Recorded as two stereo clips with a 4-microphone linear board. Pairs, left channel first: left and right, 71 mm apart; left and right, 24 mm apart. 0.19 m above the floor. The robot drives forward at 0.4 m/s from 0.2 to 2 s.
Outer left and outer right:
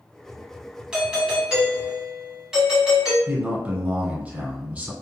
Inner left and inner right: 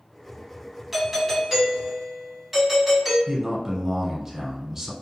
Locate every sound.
0.9 s a doorbell: 10° right (ahead or behind), 1.6 m
3.3 s a man speaking: 25° right (ahead or behind), 1.3 m